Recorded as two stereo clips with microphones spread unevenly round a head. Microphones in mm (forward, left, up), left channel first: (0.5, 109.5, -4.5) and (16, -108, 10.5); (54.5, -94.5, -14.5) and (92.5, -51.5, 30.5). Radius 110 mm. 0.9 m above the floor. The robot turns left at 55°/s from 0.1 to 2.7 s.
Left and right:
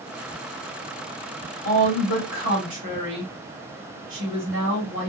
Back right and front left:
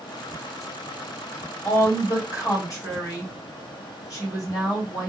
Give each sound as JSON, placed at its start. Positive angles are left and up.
{"t": 1.6, "sound": "a woman speaking", "azimuth_deg": -85, "distance_m": 1.5}